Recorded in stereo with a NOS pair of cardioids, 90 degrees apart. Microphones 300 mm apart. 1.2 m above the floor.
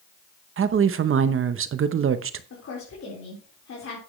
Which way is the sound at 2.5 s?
45° left.